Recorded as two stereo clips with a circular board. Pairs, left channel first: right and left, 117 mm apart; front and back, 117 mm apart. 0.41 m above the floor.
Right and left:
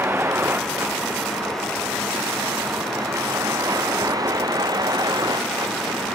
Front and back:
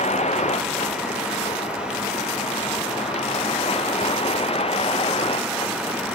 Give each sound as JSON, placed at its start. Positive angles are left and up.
{"t": 0.0, "sound": "a vehicle", "azimuth_deg": 20}